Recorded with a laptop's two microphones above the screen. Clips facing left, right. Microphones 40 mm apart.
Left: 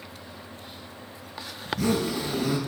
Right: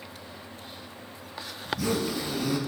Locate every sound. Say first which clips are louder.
1.6 s a zipper: left 3 dB; 85° left, 7 m